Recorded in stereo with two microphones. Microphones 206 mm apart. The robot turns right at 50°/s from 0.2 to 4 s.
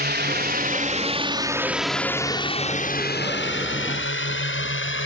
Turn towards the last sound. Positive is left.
turn(degrees=80)